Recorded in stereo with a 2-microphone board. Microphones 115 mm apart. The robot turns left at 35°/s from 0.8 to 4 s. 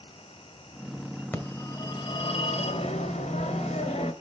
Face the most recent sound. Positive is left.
turn(degrees=65)